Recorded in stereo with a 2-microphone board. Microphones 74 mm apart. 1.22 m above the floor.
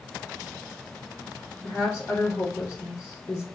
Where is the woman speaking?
25° left (ahead or behind), 0.8 m.